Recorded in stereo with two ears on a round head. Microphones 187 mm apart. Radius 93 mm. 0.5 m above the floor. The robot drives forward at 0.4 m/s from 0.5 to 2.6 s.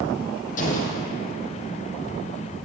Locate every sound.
0.6 s an explosion: 40° left (ahead or behind), 3 m